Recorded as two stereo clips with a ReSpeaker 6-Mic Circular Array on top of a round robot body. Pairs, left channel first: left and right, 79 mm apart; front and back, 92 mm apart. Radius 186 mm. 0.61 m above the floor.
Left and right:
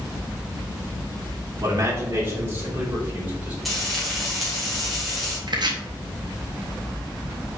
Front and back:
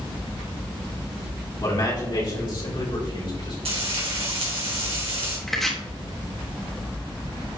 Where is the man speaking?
40° right, 2.5 m; by 3.5 s 20° right, 5 m.